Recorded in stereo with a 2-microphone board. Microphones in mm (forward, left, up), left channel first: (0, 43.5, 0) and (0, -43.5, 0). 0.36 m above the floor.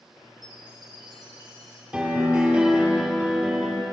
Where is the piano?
10° right (ahead or behind), 1.9 m.